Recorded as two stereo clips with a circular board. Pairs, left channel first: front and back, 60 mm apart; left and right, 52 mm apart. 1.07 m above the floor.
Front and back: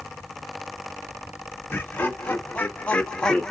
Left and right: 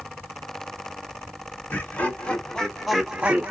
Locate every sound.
1.7 s laughter: 55° left, 1.0 m; by 3.5 s 75° right, 0.7 m